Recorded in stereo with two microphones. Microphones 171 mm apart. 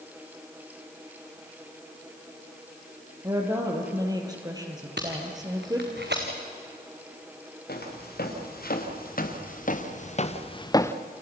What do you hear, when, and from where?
3.2 s a woman speaking: 20° right (ahead or behind), 4.5 m
5.0 s tape being pulled: 80° right, 3.5 m
7.7 s footsteps: 65° left (ahead or behind), 4.5 m; by 11.0 s 10° left (ahead or behind), 1.0 m